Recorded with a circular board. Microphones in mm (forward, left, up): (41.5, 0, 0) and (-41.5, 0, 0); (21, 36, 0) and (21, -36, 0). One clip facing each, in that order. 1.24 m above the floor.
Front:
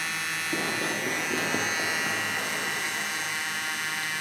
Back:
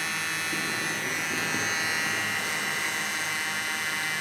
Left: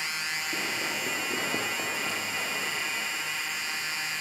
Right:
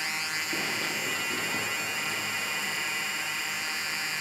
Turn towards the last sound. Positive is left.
turn(degrees=65)